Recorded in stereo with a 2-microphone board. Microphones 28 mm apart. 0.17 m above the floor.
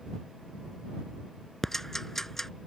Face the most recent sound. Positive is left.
turn(degrees=10)  # may be behind; listen again after turning